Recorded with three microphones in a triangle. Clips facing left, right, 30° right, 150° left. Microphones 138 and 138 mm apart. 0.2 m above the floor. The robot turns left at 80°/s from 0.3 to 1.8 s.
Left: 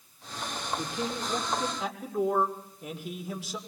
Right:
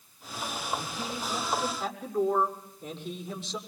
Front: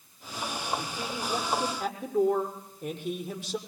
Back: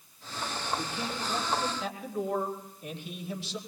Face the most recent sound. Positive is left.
turn(degrees=10)